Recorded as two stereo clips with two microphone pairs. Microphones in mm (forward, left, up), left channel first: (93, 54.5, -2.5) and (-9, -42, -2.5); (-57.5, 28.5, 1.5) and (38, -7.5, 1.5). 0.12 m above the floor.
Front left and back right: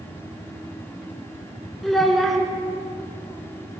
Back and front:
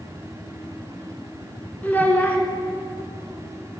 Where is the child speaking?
125° left, 0.7 m.